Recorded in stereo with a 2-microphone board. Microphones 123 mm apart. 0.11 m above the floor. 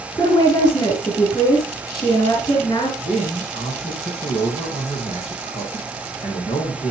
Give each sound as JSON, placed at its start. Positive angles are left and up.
{"t": 0.2, "sound": "a woman speaking", "side_deg": 35, "distance_m": 5.0}
{"t": 3.0, "sound": "a man speaking", "side_deg": 65, "distance_m": 4.0}